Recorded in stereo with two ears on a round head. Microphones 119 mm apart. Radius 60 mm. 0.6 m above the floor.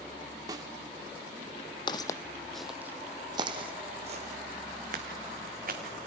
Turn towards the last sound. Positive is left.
turn(degrees=-65)  # may be behind; listen again after turning